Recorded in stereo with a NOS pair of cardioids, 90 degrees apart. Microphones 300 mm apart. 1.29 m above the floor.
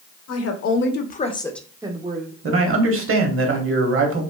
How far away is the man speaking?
About 1.0 m.